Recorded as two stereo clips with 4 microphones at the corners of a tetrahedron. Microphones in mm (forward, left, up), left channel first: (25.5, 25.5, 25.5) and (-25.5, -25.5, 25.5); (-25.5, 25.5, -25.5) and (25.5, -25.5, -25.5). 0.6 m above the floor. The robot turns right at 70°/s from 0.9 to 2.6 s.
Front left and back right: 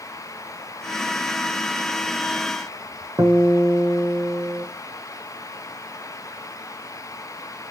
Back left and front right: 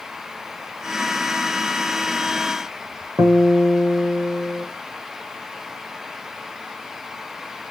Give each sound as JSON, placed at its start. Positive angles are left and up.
{"t": 3.2, "sound": "a guitar", "azimuth_deg": -90, "distance_m": 0.7}